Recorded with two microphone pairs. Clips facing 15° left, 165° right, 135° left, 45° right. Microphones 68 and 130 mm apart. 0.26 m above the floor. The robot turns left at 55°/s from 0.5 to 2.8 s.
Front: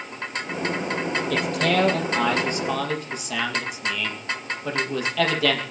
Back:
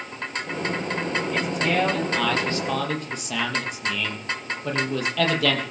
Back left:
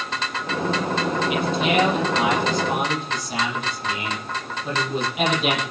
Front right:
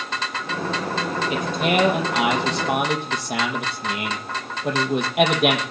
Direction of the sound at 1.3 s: 10° left.